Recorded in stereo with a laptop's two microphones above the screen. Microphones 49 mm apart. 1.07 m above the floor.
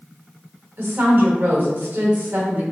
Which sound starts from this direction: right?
A woman speaking, at 0.8 s.